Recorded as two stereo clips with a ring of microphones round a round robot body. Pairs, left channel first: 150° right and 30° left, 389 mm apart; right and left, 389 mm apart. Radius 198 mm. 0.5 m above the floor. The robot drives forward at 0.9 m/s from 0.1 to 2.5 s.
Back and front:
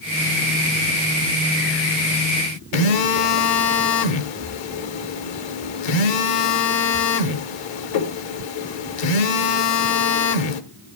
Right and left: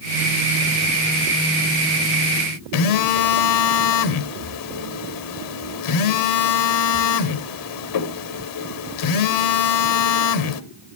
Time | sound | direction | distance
2.7 | a phone buzzing | 130° right | 1.2 m